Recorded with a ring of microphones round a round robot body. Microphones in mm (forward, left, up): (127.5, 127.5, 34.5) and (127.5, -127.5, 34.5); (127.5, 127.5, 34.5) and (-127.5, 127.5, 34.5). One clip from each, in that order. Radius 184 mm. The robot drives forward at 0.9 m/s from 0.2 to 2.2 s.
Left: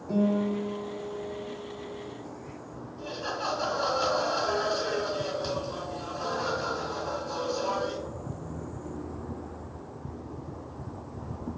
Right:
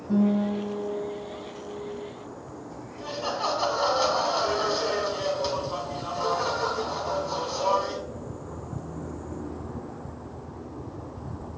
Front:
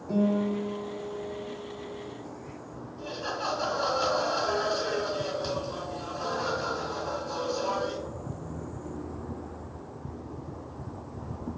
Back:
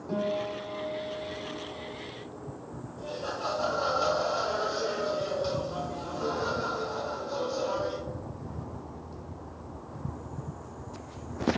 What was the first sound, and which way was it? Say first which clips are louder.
A guitar: right 1 dB, front 2 dB; 125° left.